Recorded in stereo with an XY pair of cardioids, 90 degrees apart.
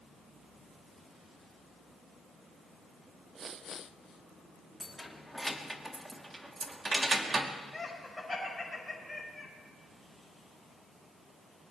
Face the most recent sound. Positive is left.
turn(degrees=20)